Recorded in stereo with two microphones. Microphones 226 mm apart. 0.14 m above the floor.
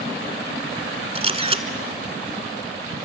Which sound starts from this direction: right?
A camera shutter, at 1.1 s.